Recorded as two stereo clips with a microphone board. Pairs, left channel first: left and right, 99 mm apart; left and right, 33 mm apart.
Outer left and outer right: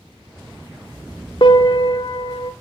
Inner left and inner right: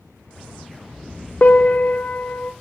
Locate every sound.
1.4 s a piano: 60° left (ahead or behind), 1.1 m